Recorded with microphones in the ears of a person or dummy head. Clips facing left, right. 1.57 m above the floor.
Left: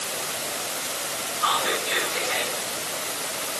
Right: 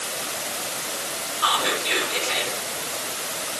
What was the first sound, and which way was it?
Whispering, 80° right.